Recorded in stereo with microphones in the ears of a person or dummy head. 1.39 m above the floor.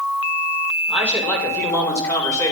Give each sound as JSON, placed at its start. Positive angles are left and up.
{"t": 0.9, "sound": "a man speaking", "side_deg": 10, "distance_m": 5.0}